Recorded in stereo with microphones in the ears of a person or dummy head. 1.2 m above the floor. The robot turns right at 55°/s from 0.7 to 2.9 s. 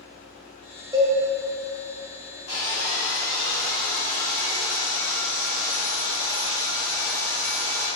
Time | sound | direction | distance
0.9 | a cowbell | 20° right (ahead or behind) | 0.6 m
2.5 | sawing | 75° left (ahead or behind) | 2.0 m